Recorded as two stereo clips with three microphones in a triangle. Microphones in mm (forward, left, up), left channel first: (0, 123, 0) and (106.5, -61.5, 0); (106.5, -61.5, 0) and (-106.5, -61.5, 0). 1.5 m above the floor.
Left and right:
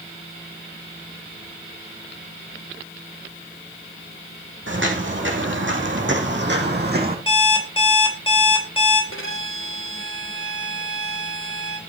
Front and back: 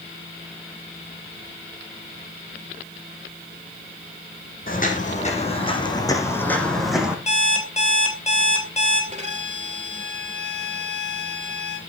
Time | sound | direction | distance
4.7 | footsteps | 45° right | 4 m
7.3 | an alarm clock | 55° left | 3 m
9.1 | a violin | 125° left | 3 m